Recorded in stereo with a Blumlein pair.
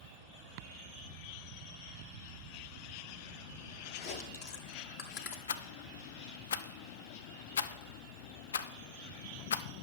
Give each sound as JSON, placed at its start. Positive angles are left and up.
{"t": 4.0, "sound": "chewing", "azimuth_deg": 50, "distance_m": 1.2}
{"t": 5.5, "sound": "a rattle", "azimuth_deg": 65, "distance_m": 0.6}